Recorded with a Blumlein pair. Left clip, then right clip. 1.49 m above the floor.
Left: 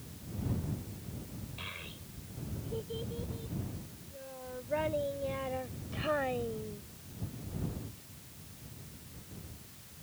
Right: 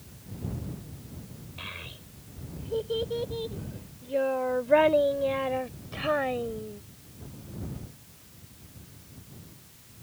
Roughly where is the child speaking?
Ahead.